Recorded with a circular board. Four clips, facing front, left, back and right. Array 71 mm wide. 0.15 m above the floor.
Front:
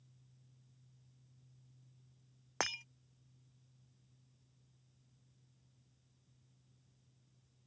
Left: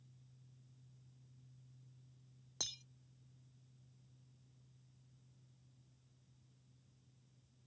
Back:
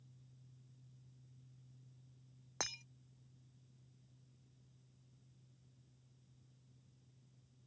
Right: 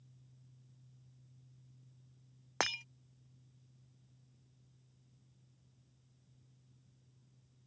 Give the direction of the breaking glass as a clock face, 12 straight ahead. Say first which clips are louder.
Right 19 dB, front 7 dB; 2 o'clock.